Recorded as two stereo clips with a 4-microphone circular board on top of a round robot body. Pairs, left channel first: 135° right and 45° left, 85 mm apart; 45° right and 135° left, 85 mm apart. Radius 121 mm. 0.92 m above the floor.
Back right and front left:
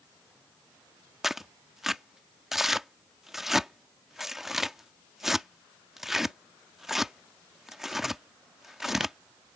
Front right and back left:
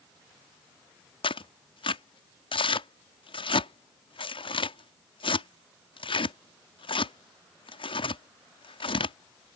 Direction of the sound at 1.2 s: 40° right.